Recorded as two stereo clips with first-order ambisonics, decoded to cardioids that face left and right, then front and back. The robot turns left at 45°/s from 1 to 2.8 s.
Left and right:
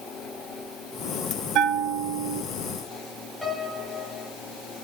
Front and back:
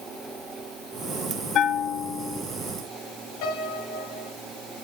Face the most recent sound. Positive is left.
turn(degrees=10)